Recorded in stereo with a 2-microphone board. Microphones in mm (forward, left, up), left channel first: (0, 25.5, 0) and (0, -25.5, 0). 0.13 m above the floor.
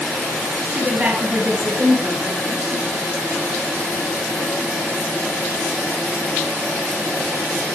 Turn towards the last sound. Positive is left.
turn(degrees=-50)  # may be behind; listen again after turning